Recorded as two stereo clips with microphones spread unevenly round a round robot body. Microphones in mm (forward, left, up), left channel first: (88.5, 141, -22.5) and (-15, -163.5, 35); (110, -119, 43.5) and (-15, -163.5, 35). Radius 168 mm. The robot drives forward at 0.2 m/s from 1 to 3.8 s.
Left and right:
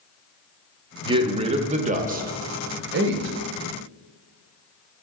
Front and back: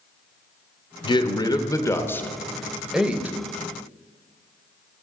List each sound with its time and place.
1.0 s a man speaking: 25° right, 0.6 m; by 3.4 s 110° right, 0.5 m